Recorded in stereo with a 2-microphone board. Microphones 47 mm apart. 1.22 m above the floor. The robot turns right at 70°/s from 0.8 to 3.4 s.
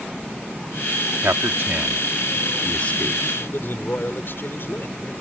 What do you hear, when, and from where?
1.2 s a man speaking: 85° right; by 3.2 s 55° left (ahead or behind)
3.4 s a man speaking: 50° left (ahead or behind)